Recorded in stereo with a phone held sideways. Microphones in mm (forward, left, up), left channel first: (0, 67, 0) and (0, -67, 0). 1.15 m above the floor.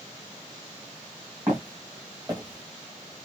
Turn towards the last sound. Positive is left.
turn(degrees=-20)  # may be behind; listen again after turning